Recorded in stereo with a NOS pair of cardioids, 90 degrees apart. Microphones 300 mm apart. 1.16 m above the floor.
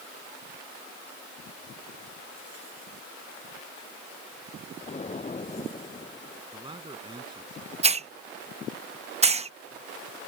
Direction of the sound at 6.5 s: 15° right.